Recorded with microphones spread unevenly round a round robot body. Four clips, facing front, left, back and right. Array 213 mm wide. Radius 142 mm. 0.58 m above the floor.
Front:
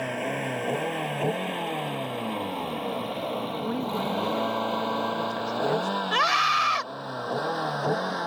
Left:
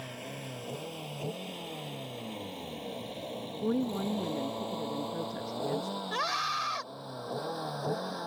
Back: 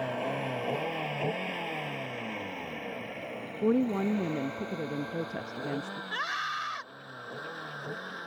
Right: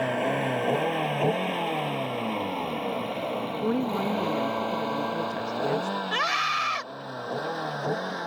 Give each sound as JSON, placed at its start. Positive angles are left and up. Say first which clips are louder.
{"t": 0.0, "sound": "a vehicle", "louder": "right 17 dB, front 3 dB", "azimuth_deg": -75}
{"t": 3.6, "sound": "a woman speaking", "louder": "right 3 dB, back 6 dB", "azimuth_deg": -140}
{"t": 6.1, "sound": "a scream", "louder": "right 4 dB, front 11 dB", "azimuth_deg": -30}